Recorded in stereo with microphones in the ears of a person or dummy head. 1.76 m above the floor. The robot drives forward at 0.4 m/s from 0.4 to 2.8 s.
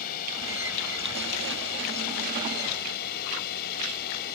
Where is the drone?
50° left (ahead or behind).